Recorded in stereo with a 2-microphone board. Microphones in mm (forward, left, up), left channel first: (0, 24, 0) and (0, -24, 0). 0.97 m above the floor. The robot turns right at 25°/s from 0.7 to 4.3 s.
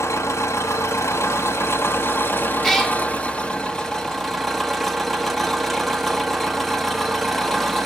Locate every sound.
0.0 s an engine running: 90° left, 0.9 m; by 7.9 s straight behind, 0.9 m
2.6 s a cat meowing: centre (ahead or behind), 1.1 m; by 3.0 s 10° left (ahead or behind), 1.1 m